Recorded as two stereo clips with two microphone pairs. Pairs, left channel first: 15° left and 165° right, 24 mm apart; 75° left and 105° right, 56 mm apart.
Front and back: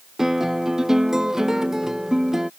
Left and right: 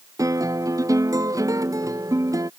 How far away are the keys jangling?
I don't hear keys jangling.